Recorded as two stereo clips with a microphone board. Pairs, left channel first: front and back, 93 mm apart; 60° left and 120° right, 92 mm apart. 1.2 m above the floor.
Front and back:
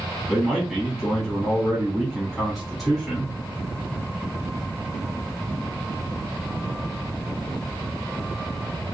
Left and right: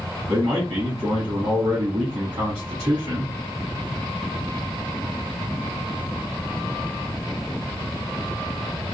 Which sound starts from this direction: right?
A man speaking, at 0.3 s.